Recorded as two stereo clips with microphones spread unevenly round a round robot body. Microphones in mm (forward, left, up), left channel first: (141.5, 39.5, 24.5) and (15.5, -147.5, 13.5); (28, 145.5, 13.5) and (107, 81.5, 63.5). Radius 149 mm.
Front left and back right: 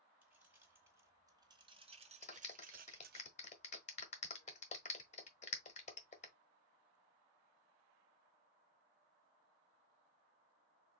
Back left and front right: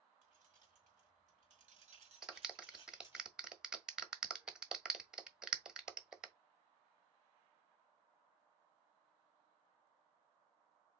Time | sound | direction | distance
0.2 | keys jangling | 40° right | 1.7 m
2.2 | a clap | 90° left | 0.9 m